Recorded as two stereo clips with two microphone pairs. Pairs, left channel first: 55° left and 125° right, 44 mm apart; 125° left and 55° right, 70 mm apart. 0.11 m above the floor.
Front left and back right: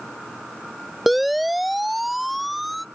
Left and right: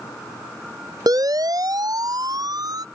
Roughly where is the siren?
Ahead right.